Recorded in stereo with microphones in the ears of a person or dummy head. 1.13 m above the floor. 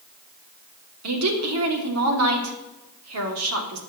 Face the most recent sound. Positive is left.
turn(degrees=-80)